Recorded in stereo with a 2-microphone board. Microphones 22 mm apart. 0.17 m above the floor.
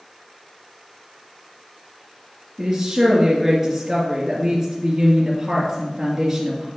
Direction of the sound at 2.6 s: 20° right (ahead or behind).